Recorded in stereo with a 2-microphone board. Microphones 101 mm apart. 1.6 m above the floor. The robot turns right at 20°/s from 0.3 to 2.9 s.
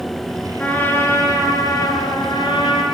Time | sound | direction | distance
0.6 | a trumpet | 20° left | 3.5 m